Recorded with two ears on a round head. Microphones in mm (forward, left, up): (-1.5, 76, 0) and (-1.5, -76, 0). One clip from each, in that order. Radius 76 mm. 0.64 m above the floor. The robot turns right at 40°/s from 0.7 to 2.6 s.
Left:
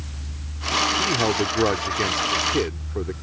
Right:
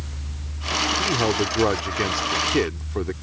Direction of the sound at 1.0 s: 150° left.